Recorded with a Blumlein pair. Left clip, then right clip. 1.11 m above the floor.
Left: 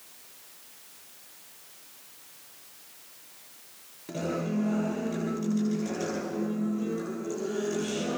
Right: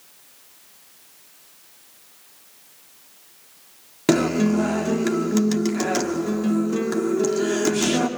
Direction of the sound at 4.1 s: 50° right.